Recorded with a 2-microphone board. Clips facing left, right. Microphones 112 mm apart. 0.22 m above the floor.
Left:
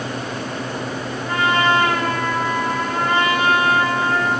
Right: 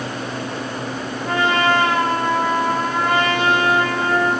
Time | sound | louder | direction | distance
1.2 | a trumpet | even | 75° right (ahead or behind) | 6.5 m